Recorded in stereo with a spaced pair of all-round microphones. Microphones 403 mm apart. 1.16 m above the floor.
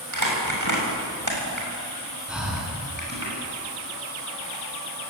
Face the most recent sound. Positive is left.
turn(degrees=0)  # may be behind; listen again after turning